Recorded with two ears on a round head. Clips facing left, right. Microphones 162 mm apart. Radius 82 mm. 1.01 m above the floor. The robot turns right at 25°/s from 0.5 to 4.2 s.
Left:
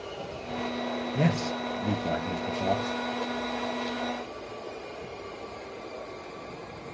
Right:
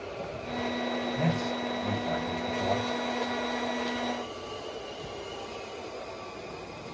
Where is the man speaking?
115° left, 0.7 m; by 3.0 s 160° left, 0.7 m.